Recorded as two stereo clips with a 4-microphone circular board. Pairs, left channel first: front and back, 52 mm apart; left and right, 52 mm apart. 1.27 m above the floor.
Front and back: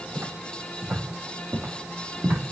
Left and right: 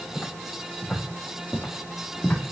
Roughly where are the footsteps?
Behind.